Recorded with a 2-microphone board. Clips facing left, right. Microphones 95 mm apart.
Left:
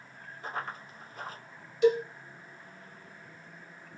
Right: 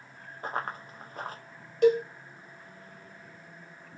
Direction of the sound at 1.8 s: 60° right (ahead or behind).